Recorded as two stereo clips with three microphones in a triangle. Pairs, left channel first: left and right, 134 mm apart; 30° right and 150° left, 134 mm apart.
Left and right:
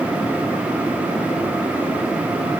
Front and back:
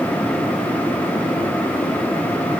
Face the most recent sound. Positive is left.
No sound to turn to.